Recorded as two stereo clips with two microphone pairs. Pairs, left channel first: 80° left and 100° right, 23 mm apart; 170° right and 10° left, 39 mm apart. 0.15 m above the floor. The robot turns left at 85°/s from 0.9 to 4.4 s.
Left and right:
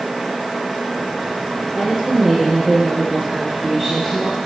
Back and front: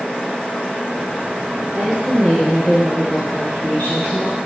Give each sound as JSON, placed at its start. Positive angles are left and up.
{"t": 1.7, "sound": "a woman speaking", "azimuth_deg": -5, "distance_m": 2.5}